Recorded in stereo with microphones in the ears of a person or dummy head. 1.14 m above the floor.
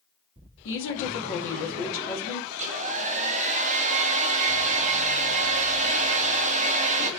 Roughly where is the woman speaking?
Left.